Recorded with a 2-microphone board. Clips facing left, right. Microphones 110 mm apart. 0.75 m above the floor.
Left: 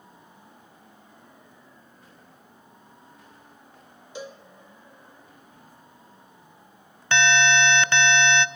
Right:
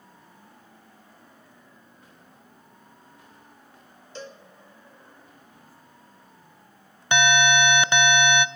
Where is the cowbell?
10° left (ahead or behind), 1.1 m.